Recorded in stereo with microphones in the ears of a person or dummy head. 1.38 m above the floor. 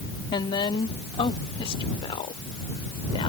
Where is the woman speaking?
20° left (ahead or behind); by 3.3 s 25° left (ahead or behind).